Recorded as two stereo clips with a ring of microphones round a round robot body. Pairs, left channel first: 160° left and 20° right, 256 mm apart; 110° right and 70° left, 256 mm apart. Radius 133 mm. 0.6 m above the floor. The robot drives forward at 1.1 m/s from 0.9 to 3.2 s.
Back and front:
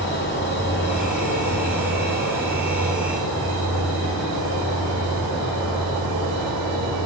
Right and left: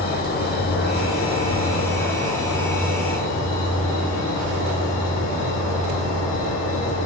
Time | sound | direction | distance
0.0 | an insect | 160° right | 1.4 m